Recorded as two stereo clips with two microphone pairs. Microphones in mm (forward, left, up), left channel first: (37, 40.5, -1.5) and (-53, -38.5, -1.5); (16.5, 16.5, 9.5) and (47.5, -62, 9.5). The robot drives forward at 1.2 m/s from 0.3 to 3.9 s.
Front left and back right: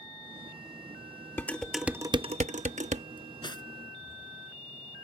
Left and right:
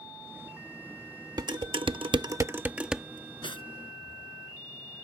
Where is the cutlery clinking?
90° left; by 3.7 s 95° left.